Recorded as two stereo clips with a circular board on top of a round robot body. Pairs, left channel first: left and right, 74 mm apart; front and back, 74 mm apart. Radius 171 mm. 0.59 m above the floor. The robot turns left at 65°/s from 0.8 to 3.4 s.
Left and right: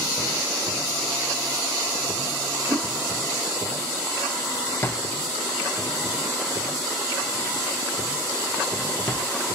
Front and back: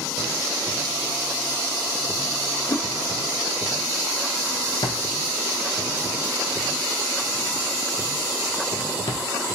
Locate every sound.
2.7 s a whoosh: 30° right, 0.5 m; by 2.8 s 40° right, 0.5 m
4.8 s a drawer: 30° left, 0.5 m